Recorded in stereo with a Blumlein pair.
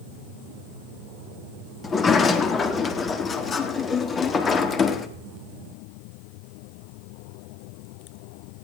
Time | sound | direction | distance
1.8 | a sliding door | 20° left | 1.6 m